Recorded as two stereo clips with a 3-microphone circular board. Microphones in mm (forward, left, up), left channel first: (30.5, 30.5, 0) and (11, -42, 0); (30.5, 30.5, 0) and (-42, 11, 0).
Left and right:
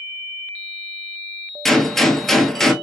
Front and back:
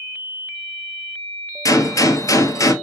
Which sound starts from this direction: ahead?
A gunshot, at 1.6 s.